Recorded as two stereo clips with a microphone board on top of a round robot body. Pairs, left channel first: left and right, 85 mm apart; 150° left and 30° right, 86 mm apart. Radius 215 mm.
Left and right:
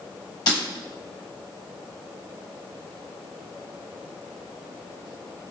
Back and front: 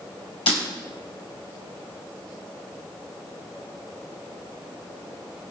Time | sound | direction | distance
0.5 | breaking glass | 135° left | 1.6 m